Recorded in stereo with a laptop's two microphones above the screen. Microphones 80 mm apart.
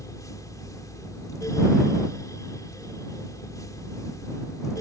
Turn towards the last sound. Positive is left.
turn(degrees=50)  # may be behind; listen again after turning